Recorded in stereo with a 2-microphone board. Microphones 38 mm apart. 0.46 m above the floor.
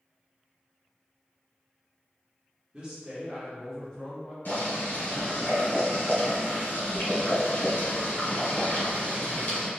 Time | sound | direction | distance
2.7 | a man speaking | 25° right (ahead or behind) | 0.9 m
4.5 | boiling | 65° left (ahead or behind) | 1.4 m